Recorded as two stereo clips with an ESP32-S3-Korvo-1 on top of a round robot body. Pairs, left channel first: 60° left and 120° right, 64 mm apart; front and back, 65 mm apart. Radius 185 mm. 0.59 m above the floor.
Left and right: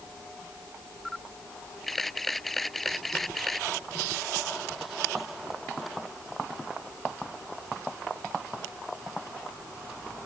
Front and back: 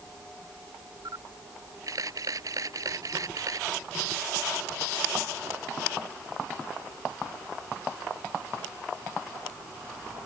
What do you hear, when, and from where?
1.1 s a camera shutter: 145° left